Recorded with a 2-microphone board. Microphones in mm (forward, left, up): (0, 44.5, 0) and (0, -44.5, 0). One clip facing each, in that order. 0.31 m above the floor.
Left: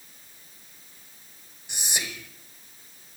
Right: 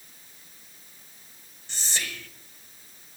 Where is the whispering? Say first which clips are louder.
Left 1 dB; 15° left (ahead or behind), 1.0 m.